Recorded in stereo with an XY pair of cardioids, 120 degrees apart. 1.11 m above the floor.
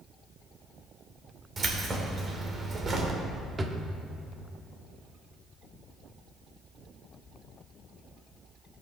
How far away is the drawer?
About 1.3 m.